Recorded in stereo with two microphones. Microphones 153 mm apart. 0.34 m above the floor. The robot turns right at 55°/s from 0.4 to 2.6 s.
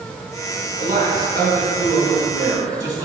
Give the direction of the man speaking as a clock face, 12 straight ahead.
4 o'clock.